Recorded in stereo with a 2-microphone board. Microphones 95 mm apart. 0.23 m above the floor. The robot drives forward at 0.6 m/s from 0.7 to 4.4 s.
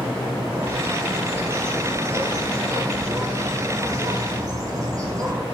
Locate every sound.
0.5 s a bird: 25° right (ahead or behind), 6.5 m; by 5.4 s 35° right (ahead or behind), 4.5 m